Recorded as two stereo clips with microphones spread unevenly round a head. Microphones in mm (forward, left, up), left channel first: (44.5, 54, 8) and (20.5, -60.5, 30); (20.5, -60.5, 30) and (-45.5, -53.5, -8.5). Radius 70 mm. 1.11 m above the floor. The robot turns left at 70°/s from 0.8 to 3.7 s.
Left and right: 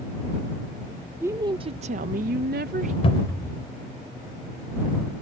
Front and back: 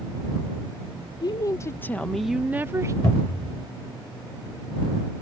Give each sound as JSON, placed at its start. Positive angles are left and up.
{"t": 1.2, "sound": "a woman speaking", "azimuth_deg": -25}
{"t": 3.0, "sound": "a cupboard door", "azimuth_deg": 35}